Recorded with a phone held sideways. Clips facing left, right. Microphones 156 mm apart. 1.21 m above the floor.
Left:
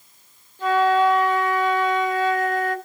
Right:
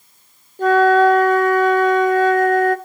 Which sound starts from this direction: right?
A flute, at 0.6 s.